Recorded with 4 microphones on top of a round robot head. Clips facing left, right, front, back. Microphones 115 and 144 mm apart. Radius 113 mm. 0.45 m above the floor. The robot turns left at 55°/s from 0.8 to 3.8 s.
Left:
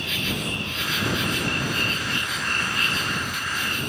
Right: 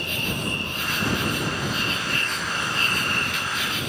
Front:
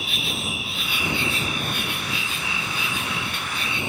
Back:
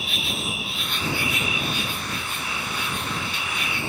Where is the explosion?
I don't hear an explosion.